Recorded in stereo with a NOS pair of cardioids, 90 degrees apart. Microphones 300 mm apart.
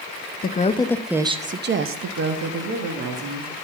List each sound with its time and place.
0.4 s a woman speaking: 30° left, 0.9 m; by 3.5 s 75° right, 1.9 m